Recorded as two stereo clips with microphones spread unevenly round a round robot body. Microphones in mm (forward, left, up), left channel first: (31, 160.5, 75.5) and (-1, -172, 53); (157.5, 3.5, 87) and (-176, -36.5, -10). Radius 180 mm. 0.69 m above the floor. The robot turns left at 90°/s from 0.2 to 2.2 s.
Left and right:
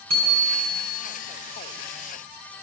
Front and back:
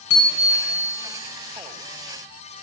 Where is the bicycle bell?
50° right, 5 m; by 0.8 s 100° right, 5 m.